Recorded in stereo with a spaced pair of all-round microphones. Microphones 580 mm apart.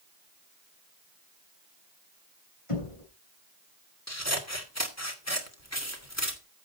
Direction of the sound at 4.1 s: 25° left (ahead or behind).